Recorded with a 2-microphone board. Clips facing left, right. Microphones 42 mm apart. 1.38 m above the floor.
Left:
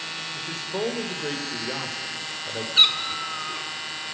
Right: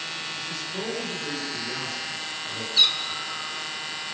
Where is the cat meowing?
35° left (ahead or behind), 2.0 m.